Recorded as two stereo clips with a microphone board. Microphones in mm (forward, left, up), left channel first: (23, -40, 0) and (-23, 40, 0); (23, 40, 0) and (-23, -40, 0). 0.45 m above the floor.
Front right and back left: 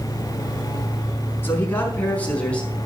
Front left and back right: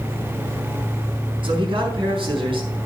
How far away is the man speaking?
About 5 m.